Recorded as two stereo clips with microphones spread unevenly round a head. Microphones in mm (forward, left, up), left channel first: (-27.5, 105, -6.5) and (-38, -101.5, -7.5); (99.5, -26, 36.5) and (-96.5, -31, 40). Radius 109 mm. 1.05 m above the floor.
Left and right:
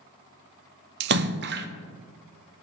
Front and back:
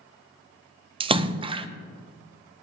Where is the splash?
115° right, 0.6 m.